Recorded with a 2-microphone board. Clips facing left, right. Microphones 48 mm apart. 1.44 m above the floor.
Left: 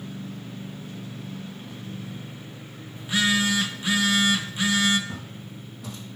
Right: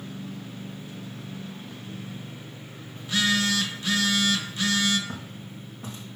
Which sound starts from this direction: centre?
A phone buzzing, at 3.0 s.